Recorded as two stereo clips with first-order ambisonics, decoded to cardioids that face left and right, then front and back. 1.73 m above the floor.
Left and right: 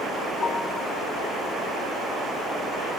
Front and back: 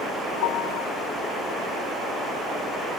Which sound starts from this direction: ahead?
A piano, at 0.4 s.